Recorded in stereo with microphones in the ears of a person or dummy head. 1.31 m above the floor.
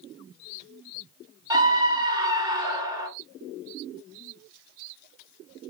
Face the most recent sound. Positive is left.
turn(degrees=-20)  # may be behind; listen again after turning